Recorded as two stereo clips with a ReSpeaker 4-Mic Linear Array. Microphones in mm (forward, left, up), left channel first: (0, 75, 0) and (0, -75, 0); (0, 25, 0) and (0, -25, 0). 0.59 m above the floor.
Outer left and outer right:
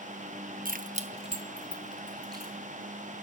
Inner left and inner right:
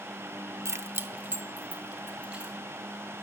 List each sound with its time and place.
0.7 s keys jangling: 65° right (ahead or behind), 0.6 m; by 2.5 s 25° right (ahead or behind), 3 m